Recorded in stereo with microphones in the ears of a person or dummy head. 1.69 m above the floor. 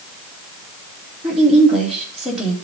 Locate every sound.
1.2 s a woman speaking: centre (ahead or behind), 3 m